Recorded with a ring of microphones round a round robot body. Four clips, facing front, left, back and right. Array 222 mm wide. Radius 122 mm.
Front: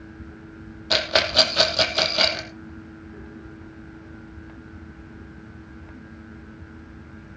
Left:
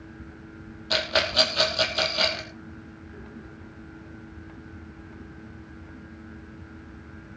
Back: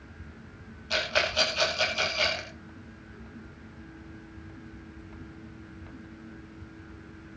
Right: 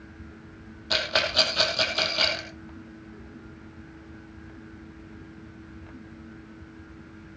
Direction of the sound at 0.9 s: Straight ahead.